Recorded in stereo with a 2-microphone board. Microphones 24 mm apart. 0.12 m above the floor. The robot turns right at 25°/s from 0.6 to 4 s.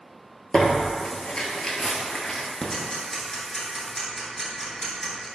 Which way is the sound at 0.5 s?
55° left (ahead or behind).